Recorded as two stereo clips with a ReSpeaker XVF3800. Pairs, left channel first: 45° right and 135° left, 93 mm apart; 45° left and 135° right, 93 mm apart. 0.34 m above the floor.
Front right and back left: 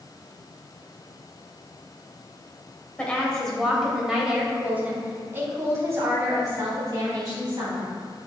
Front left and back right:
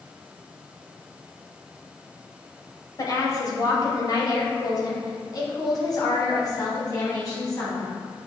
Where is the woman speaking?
25° left, 1.7 m; by 7.9 s 95° left, 3.5 m.